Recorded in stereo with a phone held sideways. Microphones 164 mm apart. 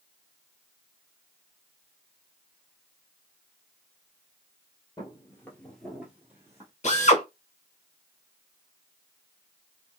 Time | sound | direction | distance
5.0 | footsteps | 25° left (ahead or behind) | 1.3 m
6.8 | a drill | 45° left (ahead or behind) | 1.0 m